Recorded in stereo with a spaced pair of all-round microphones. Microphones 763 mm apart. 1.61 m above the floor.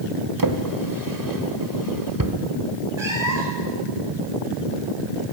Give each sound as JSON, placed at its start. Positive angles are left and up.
{"t": 0.4, "sound": "a drawer", "side_deg": -25, "distance_m": 1.5}
{"t": 3.0, "sound": "a cat meowing", "side_deg": -65, "distance_m": 4.0}